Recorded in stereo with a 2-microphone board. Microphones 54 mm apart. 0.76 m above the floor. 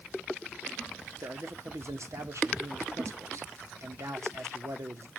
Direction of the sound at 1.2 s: 70° right (ahead or behind).